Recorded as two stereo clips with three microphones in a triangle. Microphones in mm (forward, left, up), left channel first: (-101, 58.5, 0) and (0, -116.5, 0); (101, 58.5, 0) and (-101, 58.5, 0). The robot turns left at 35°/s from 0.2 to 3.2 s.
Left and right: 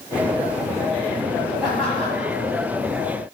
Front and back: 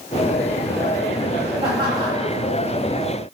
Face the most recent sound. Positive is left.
turn(degrees=160)